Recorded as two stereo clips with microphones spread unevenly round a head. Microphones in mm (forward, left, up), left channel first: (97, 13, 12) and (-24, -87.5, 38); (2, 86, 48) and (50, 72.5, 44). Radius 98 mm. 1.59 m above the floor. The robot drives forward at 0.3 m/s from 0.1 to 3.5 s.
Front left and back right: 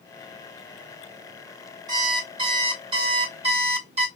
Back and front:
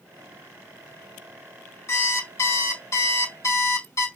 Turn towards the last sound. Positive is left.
turn(degrees=165)